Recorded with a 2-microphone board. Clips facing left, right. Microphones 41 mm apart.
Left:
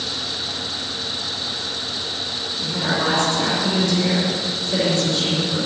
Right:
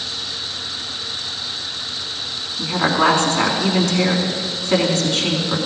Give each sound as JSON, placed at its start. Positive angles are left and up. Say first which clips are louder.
{"t": 2.6, "sound": "a woman speaking", "louder": "right 6 dB", "side_deg": -65, "distance_m": 3.5}